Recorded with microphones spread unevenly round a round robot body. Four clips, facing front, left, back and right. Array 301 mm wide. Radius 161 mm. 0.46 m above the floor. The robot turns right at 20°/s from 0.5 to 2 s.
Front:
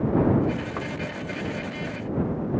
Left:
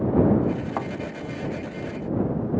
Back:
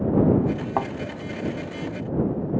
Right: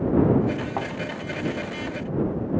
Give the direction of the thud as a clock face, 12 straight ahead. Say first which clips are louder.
Even, back 7 dB; 6 o'clock.